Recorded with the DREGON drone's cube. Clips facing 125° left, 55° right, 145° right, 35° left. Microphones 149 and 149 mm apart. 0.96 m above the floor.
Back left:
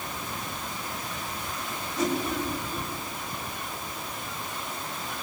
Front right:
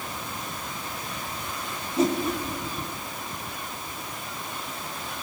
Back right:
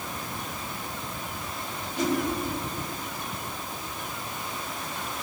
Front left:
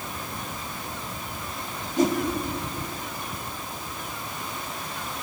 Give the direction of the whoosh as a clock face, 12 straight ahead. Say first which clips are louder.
Front right 4 dB, front left 4 dB; 12 o'clock.